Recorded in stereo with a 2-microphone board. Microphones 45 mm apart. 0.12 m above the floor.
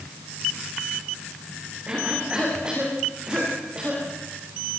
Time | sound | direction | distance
1.9 | a cough | 25° right (ahead or behind) | 9.5 m